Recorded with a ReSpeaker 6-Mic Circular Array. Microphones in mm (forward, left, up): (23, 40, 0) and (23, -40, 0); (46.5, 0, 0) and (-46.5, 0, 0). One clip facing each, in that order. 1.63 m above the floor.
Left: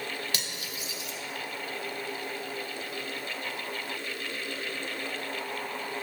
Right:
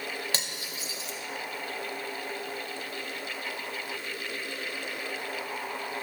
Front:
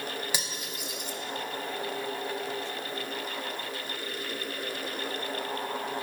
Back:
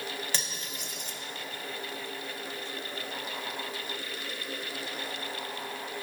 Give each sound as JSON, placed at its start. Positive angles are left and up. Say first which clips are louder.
{"t": 0.3, "sound": "cutlery clinking", "louder": "right 1 dB, front 2 dB", "azimuth_deg": -65, "distance_m": 0.8}